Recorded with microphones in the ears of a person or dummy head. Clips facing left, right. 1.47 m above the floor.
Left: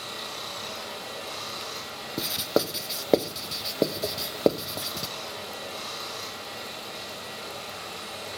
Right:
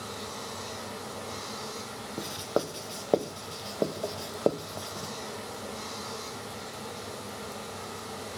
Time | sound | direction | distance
0.0 | running water | 40° left (ahead or behind) | 3.5 m
2.2 | writing | 25° left (ahead or behind) | 0.5 m